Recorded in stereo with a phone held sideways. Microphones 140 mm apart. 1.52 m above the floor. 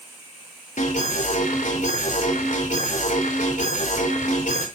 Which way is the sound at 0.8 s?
80° left.